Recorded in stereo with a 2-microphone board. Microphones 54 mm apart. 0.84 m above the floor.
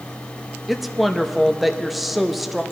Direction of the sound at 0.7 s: Centre (ahead or behind).